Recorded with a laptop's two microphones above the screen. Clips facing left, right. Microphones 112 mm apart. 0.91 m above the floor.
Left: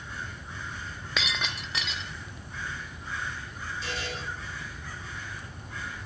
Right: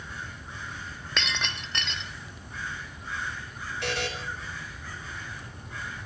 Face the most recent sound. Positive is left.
turn(degrees=-70)  # may be behind; listen again after turning